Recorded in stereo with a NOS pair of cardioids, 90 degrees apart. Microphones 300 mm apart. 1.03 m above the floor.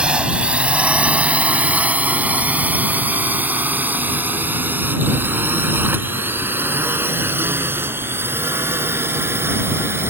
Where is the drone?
5° right; by 10.1 s 10° right.